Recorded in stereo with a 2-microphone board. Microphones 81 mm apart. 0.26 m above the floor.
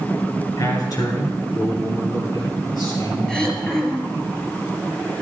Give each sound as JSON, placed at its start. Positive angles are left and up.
{"t": 0.6, "sound": "a man speaking", "side_deg": 45, "distance_m": 3.5}
{"t": 3.3, "sound": "throat clearing", "side_deg": 10, "distance_m": 2.0}